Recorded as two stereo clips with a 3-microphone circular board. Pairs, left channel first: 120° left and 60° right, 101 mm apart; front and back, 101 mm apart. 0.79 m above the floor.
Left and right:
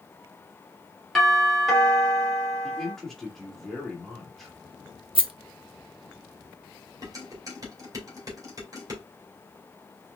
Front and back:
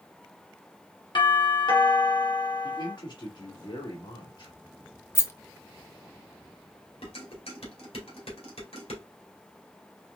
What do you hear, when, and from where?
1.1 s a doorbell: 30° left, 2 m
2.6 s a man speaking: 35° left, 2.0 m
5.2 s a rattle: 60° right, 0.7 m
7.0 s dishes clattering: 10° right, 2 m